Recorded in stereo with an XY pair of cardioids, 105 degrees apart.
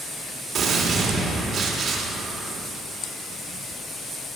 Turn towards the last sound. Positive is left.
turn(degrees=-65)